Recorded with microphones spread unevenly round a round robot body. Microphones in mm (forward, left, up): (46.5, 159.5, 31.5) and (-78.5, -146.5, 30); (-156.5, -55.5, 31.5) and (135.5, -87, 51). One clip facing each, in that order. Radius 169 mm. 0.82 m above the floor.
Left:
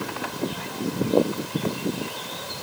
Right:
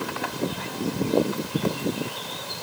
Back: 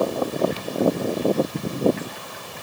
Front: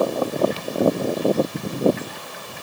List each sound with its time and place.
Only background noise.